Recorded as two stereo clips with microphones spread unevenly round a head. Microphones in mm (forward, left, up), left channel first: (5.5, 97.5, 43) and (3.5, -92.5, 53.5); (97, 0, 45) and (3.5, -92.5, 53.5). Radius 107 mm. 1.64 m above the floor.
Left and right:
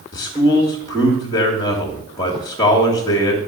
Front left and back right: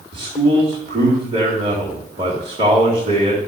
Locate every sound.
0.1 s a man speaking: 165° left, 2.5 m